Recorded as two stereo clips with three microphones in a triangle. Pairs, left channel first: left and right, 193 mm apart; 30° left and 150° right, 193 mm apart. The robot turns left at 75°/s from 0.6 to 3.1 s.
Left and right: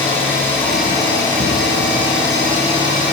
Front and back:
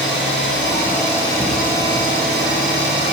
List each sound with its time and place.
0.0 s an engine running: 10° left, 4.5 m; by 3.1 s 175° right, 4.5 m